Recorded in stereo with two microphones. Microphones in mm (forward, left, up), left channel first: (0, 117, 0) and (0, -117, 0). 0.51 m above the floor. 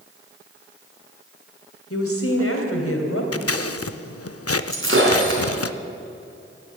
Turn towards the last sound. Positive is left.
turn(degrees=-60)  # may be behind; listen again after turning